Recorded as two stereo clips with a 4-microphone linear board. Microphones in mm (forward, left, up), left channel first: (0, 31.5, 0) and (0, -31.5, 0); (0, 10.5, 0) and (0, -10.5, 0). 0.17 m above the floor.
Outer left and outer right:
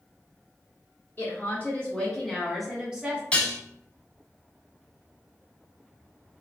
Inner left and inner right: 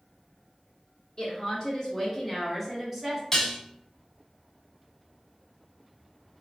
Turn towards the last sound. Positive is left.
turn(degrees=20)  # may be behind; listen again after turning